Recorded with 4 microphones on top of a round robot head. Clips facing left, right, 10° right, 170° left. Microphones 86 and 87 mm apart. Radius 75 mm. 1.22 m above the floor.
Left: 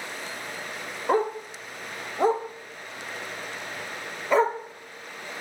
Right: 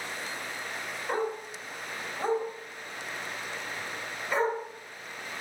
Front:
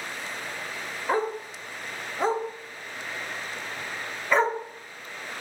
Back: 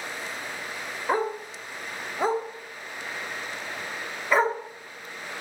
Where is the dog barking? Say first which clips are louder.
Left 7 dB, even; 90° left, 1.1 m.